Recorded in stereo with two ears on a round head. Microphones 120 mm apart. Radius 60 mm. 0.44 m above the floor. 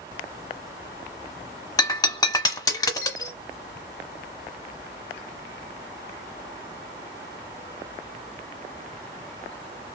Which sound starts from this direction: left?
Breaking glass, at 1.8 s.